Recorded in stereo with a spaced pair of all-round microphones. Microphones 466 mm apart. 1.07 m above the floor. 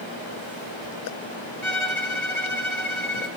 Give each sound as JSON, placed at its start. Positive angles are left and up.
{"t": 1.6, "sound": "a violin", "side_deg": -75, "distance_m": 3.0}